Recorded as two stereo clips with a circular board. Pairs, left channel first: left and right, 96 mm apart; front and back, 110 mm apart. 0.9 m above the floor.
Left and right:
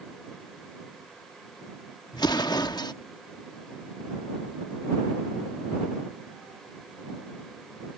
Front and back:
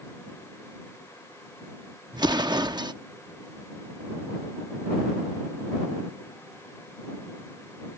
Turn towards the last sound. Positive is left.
turn(degrees=130)